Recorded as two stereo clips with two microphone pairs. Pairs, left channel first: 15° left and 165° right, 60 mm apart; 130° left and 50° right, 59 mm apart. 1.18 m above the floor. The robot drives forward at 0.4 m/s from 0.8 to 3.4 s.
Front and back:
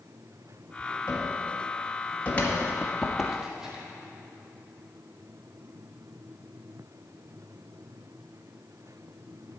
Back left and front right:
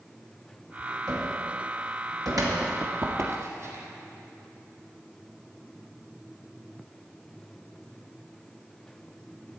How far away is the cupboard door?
About 2 m.